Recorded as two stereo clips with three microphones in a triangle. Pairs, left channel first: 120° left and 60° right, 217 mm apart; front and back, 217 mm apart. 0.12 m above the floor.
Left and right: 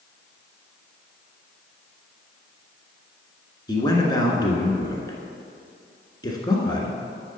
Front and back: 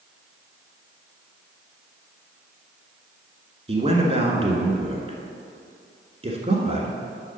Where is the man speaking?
170° left, 1.2 m.